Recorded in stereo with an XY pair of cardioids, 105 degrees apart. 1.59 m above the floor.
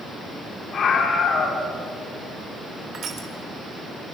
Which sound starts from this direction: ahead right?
Crushing, at 2.9 s.